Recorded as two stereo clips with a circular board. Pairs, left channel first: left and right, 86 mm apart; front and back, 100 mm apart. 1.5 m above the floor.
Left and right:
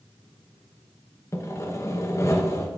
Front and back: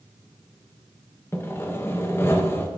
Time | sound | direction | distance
1.3 | sawing | 55° left | 0.8 m